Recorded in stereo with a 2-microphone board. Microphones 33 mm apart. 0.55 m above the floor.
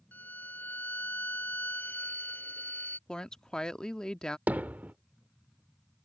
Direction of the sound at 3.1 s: 25° left (ahead or behind).